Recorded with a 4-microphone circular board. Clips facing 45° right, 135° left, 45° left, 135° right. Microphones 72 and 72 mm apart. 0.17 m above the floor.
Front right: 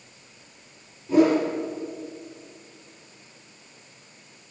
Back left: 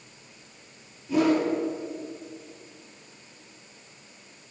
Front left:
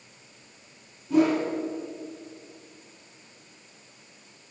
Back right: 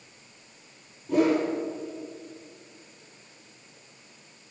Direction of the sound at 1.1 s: 105° right.